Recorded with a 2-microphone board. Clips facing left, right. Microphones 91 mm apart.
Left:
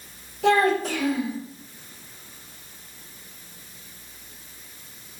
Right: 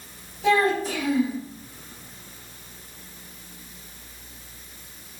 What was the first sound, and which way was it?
A child speaking, 65° left (ahead or behind).